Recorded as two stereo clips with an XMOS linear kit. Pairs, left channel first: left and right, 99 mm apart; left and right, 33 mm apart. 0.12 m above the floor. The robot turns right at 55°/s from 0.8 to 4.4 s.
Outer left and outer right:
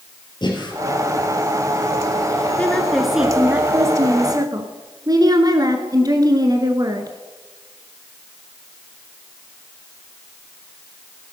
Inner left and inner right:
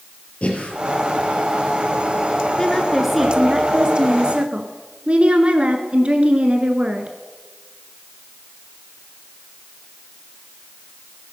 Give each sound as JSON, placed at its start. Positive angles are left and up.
{"t": 0.4, "sound": "breathing", "side_deg": 50, "distance_m": 2.5}
{"t": 2.6, "sound": "a woman speaking", "azimuth_deg": 155, "distance_m": 1.4}